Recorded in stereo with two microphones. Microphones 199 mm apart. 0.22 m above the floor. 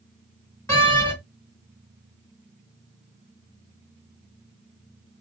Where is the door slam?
15° left (ahead or behind), 1.4 m.